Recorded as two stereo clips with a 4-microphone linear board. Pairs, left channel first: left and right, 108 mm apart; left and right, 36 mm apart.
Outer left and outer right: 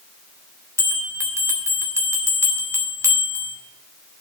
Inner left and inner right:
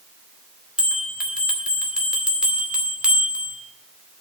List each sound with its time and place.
0.8 s a bell: 25° right (ahead or behind), 2.5 m